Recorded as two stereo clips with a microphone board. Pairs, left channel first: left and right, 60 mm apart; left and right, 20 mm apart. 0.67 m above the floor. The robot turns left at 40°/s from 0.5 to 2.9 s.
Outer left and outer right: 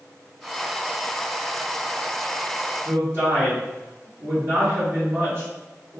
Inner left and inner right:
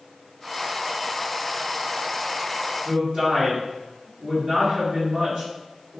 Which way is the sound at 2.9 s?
45° right (ahead or behind).